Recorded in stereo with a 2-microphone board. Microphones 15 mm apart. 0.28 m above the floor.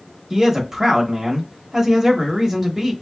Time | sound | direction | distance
0.3 | a man speaking | 20° right (ahead or behind) | 0.9 m